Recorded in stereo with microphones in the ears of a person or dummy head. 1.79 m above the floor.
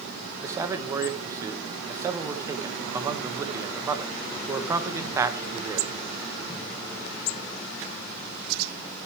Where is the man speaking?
15° right (ahead or behind), 1.5 m.